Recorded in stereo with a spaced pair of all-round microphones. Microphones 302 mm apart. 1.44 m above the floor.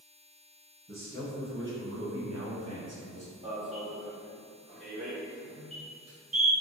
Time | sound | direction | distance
0.9 | a man speaking | 30° right (ahead or behind) | 1.1 m
3.4 | an alarm | 20° right (ahead or behind) | 0.8 m